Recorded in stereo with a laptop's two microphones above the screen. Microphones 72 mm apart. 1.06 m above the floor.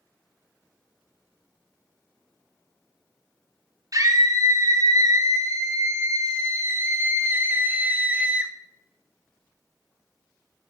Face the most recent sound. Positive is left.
turn(degrees=-15)  # may be behind; listen again after turning